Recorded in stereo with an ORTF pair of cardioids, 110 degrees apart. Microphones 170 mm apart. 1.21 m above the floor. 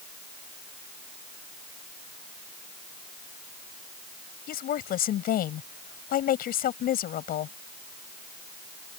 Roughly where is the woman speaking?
Ahead left.